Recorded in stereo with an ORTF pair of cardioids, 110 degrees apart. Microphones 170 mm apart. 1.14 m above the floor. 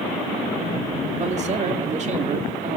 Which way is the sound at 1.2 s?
40° right.